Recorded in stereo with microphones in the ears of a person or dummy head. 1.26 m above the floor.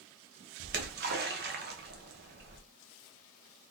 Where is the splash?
50° right (ahead or behind), 0.7 m.